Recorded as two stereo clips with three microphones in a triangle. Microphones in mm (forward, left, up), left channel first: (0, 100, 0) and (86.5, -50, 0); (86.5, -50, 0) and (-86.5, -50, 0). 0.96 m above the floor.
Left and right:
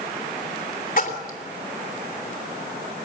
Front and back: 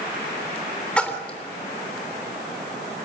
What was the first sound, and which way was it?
A splash, 85° left.